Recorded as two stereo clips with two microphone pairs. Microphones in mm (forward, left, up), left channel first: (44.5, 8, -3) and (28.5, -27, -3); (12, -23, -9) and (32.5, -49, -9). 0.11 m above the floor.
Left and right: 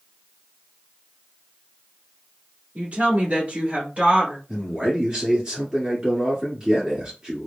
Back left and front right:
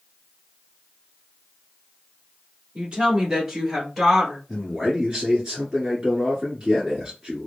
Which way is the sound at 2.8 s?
105° right.